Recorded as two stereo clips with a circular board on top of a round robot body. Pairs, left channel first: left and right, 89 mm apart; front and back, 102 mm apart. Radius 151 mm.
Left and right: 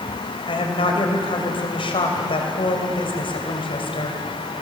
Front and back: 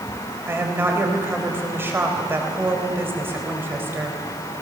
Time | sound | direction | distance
0.5 | a woman speaking | 110° left | 3.5 m